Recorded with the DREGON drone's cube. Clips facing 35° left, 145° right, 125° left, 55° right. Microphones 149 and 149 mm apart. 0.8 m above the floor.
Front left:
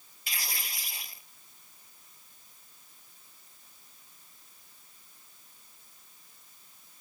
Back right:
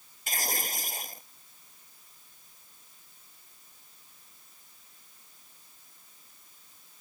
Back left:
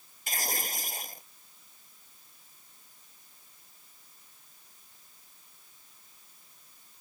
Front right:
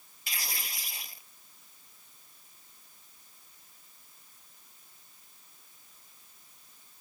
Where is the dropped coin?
I don't hear a dropped coin.